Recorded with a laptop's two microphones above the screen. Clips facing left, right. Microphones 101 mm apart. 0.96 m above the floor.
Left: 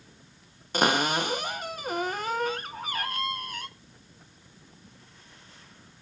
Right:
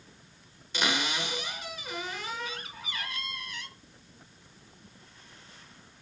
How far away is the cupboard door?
About 0.8 m.